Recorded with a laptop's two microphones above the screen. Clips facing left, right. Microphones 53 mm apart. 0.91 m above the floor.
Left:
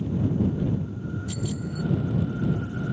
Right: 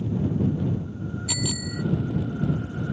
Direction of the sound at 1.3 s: 85° right.